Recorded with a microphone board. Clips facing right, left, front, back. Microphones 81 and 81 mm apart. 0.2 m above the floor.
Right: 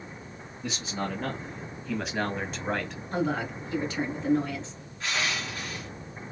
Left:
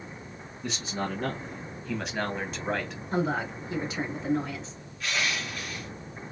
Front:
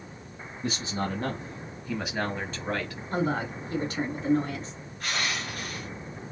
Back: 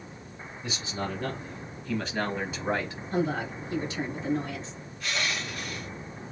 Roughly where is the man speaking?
Ahead.